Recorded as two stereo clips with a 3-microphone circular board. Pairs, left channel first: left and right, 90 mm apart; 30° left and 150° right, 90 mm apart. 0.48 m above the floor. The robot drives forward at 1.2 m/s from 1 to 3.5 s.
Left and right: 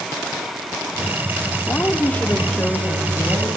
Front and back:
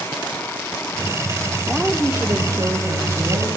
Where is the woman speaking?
120° left, 0.8 m; by 3.5 s 175° left, 2.5 m.